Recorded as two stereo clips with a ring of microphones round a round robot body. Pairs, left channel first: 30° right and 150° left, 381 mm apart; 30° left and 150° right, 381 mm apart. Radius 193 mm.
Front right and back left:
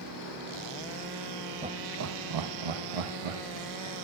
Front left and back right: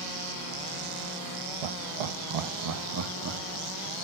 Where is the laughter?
135° right, 0.8 m; by 4.0 s 145° left, 2.0 m.